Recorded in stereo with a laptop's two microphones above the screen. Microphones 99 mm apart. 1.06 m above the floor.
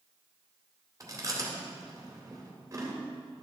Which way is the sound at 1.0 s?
35° right (ahead or behind).